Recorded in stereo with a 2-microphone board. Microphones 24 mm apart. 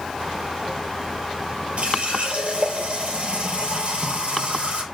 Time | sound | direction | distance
1.8 | a running tap | 60° right (ahead or behind) | 3.5 m